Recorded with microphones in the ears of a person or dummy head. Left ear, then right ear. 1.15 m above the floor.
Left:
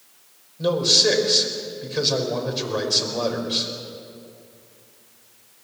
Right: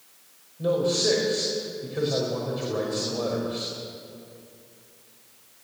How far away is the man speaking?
About 5 m.